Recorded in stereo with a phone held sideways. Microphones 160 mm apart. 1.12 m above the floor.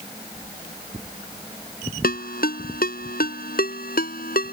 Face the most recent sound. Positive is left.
turn(degrees=70)  # may be behind; listen again after turning